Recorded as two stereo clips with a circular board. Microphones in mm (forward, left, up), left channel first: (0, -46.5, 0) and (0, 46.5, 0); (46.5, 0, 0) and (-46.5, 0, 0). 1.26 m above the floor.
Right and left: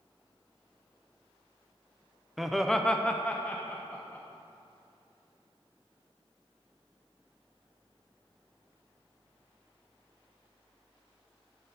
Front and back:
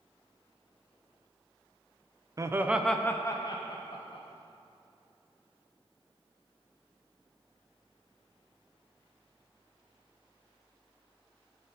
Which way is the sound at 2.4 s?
175° left.